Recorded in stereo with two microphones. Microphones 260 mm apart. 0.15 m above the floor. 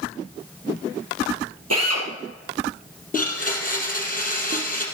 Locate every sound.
1.7 s a drill: 75° right (ahead or behind), 3.5 m
3.1 s a blender: 30° left (ahead or behind), 3 m